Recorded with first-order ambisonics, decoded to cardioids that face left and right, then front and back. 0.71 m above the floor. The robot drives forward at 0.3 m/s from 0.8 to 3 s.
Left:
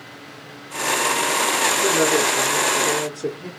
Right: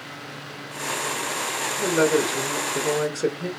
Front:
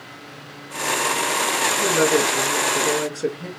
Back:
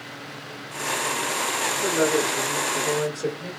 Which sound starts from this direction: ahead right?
A woman speaking, at 1.8 s.